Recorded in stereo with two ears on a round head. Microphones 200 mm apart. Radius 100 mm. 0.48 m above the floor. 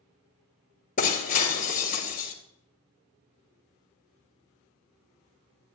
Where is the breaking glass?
35° left (ahead or behind), 2 m.